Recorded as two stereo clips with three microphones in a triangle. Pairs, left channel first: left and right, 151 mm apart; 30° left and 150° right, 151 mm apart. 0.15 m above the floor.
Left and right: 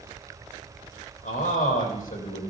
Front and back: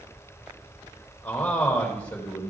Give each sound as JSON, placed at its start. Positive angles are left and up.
{"t": 1.2, "sound": "a man speaking", "azimuth_deg": 110, "distance_m": 5.0}